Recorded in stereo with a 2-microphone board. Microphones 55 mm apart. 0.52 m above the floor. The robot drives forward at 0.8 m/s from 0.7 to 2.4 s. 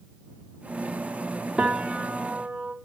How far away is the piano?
About 0.8 m.